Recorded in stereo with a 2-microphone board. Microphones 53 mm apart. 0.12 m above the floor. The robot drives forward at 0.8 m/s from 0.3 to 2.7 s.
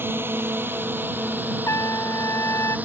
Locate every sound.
0.0 s a drone: 45° right (ahead or behind); by 2.9 s 30° right (ahead or behind)
1.7 s a trumpet: 65° left (ahead or behind); by 2.8 s 60° left (ahead or behind)